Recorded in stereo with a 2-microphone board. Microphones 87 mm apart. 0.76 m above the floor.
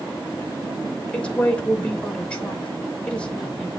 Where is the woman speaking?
15° left (ahead or behind), 3 m.